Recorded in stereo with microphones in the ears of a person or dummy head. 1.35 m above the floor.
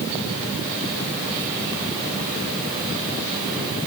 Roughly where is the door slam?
No door slam in this recording.